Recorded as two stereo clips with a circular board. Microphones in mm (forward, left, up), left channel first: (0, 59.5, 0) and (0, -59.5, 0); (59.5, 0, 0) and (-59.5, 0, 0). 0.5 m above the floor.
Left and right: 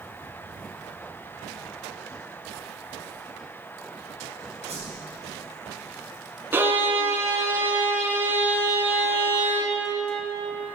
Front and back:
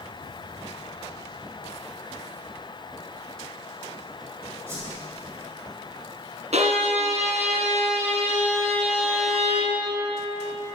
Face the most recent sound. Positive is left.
turn(degrees=-160)